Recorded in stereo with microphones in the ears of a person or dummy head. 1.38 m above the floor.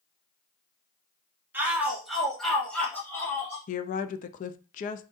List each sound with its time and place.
1.5 s a shout: 10° right (ahead or behind), 1.8 m; by 3.6 s 10° left (ahead or behind), 2.5 m
3.7 s a woman speaking: 35° left (ahead or behind), 0.5 m